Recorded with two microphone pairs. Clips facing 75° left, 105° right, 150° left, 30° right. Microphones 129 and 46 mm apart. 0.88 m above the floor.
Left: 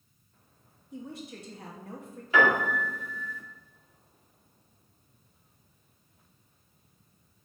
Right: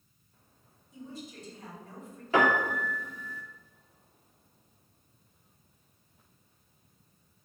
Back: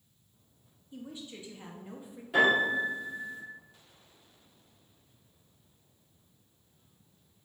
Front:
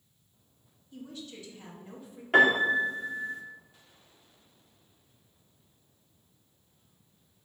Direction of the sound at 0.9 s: 85° left.